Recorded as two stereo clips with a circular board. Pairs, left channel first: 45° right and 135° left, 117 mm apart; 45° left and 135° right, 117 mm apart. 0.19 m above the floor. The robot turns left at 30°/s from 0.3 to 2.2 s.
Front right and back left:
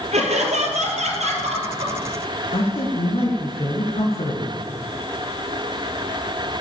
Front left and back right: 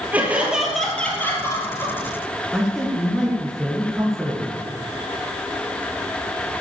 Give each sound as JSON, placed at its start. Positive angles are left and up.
{"t": 0.1, "sound": "laughter", "azimuth_deg": 145, "distance_m": 4.0}
{"t": 2.5, "sound": "a man speaking", "azimuth_deg": -45, "distance_m": 3.0}